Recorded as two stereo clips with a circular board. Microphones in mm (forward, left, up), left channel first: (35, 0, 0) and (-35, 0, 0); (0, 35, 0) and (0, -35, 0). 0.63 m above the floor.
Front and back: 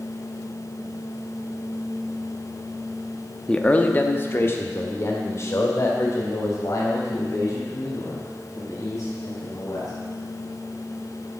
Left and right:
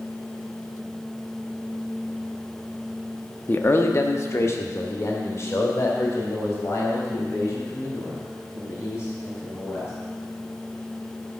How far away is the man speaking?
About 0.7 m.